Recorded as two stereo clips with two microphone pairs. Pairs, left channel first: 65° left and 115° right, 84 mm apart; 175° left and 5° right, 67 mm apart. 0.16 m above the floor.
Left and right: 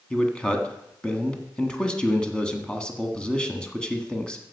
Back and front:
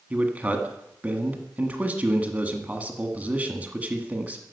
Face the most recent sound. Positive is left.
turn(degrees=5)